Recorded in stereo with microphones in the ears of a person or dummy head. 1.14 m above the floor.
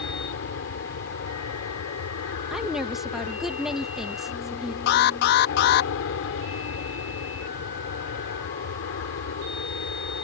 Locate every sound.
0.0 s an aircraft: 65° left (ahead or behind)
2.5 s a woman speaking: 5° right (ahead or behind)
4.9 s an alarm: 55° left (ahead or behind)